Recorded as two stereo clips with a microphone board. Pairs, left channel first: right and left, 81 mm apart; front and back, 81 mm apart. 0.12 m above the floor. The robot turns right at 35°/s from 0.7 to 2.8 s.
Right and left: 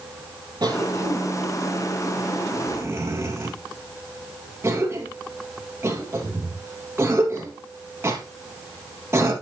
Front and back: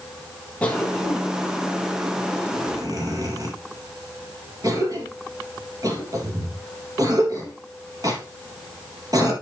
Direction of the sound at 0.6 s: 70° left.